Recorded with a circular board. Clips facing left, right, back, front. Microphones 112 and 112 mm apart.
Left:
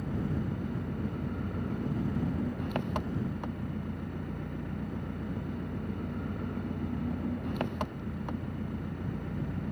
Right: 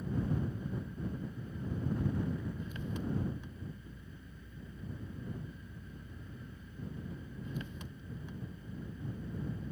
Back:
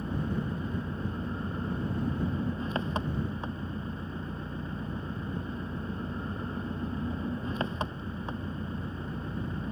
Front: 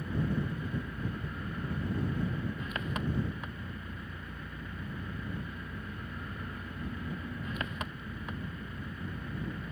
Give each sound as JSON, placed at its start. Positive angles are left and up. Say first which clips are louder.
{"t": 0.0, "sound": "an engine running", "louder": "left 2 dB, back 1 dB", "azimuth_deg": 120}